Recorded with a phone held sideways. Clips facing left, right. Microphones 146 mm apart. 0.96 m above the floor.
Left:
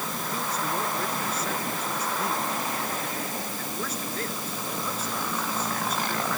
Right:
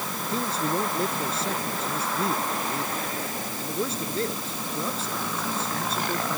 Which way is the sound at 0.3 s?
30° right (ahead or behind).